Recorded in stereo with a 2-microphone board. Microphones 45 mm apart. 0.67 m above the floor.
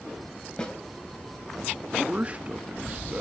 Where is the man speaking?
35° right (ahead or behind), 0.7 m.